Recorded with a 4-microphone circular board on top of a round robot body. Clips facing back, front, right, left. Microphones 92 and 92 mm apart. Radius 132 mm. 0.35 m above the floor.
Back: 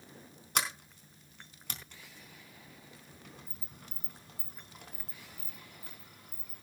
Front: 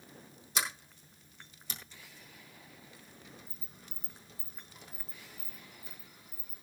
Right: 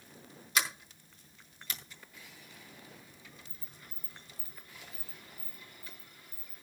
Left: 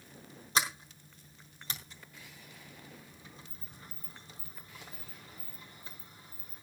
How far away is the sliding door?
About 4 m.